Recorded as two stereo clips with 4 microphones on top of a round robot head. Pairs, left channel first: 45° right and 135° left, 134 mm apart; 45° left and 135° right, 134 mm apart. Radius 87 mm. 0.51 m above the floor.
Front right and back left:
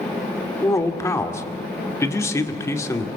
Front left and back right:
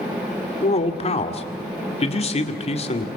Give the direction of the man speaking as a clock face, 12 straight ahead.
11 o'clock.